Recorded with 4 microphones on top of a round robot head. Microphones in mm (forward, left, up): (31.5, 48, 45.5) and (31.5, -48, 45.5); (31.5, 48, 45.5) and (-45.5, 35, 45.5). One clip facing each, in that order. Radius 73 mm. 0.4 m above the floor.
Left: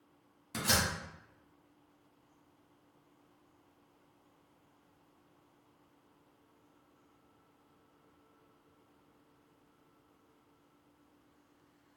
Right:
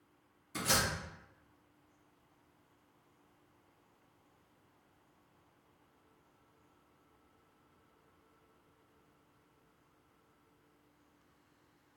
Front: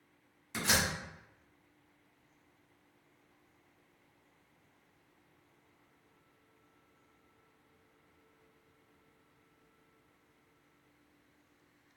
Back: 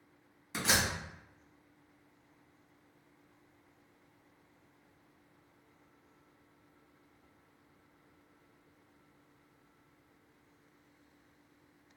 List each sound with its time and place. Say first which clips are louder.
0.5 s a door slam: left 1 dB, back 1 dB; 105° left, 1.9 m